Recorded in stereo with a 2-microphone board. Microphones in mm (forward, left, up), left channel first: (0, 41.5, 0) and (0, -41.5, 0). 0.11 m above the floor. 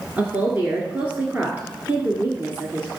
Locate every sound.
0.2 s a woman speaking: 20° right (ahead or behind), 1.6 m